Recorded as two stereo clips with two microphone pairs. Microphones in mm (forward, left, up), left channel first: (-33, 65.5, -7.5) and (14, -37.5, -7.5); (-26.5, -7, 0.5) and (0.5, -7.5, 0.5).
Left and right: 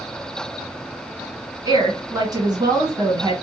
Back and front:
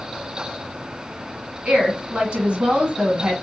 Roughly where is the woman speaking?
Ahead right.